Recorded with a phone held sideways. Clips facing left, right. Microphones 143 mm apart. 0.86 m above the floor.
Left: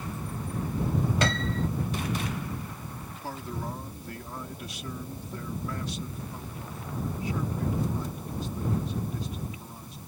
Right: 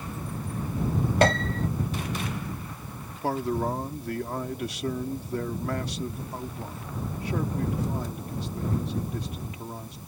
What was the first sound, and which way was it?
A piano, 50° right (ahead or behind).